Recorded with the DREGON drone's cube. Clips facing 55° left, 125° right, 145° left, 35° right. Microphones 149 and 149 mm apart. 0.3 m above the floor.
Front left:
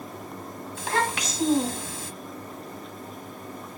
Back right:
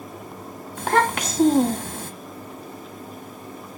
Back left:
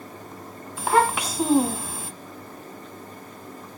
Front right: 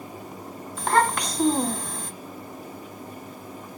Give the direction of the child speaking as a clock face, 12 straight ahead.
4 o'clock.